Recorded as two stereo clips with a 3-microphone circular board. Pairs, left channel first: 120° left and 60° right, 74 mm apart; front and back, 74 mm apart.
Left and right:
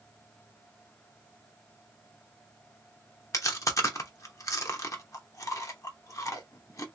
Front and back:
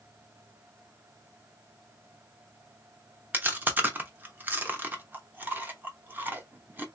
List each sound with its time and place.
3.3 s chewing: 125° left, 0.9 m